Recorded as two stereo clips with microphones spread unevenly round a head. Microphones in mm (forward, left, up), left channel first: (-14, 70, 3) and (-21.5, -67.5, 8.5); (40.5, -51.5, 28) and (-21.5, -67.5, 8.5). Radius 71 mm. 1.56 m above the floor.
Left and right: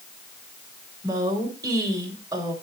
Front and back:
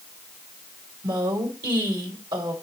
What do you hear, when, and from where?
1.0 s a woman speaking: 160° right, 2.5 m